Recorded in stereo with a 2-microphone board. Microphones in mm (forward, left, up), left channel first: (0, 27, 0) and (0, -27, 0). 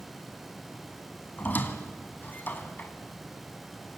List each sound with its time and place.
1.4 s a squeak: 35° left (ahead or behind), 1.7 m